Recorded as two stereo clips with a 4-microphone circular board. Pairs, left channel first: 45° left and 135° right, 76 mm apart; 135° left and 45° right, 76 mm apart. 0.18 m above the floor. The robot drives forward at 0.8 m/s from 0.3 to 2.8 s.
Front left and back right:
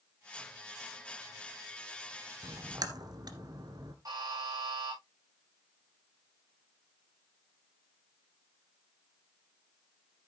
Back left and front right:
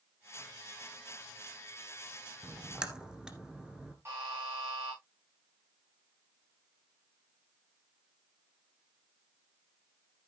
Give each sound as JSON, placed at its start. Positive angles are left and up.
{"t": 2.4, "sound": "a splash", "azimuth_deg": -110, "distance_m": 1.4}
{"t": 4.0, "sound": "a buzzer", "azimuth_deg": -100, "distance_m": 8.0}